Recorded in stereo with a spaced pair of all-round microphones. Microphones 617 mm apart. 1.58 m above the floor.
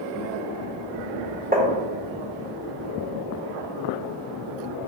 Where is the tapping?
15° right (ahead or behind), 1.5 m.